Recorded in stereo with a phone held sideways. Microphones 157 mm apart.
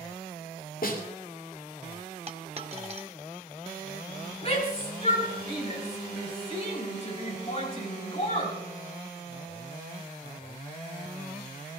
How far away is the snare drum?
About 2.5 m.